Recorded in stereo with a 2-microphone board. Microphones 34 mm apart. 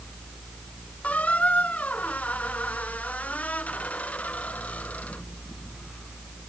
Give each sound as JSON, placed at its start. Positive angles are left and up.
{"t": 1.0, "sound": "a squeak", "side_deg": 40}